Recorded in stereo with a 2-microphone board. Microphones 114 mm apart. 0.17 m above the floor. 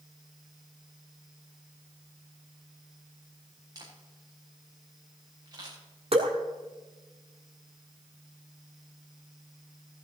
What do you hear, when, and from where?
3.8 s a camera shutter: 35° right (ahead or behind), 5.5 m
6.1 s dripping: 60° right (ahead or behind), 1.8 m